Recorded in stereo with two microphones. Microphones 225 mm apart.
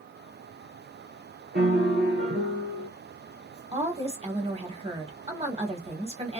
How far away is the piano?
About 1.4 m.